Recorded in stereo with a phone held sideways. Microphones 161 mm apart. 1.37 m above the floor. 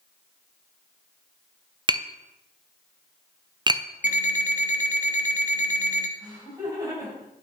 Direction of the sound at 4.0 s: 55° left (ahead or behind).